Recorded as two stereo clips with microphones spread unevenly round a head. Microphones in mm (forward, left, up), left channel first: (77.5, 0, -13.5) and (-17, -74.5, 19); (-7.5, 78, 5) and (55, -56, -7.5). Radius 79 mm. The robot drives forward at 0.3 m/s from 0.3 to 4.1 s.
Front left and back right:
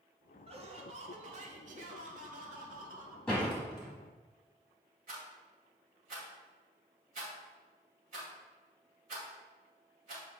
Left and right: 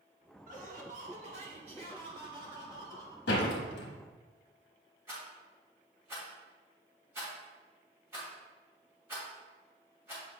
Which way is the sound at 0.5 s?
100° right.